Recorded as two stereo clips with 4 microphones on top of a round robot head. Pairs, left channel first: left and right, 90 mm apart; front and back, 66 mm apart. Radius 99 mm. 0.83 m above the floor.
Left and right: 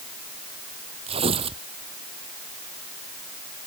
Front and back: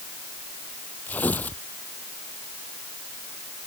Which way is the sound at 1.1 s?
70° right.